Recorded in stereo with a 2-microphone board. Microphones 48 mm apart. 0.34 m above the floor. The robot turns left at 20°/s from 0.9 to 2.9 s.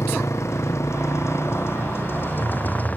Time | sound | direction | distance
0.0 | a motorcycle | 80° left | ?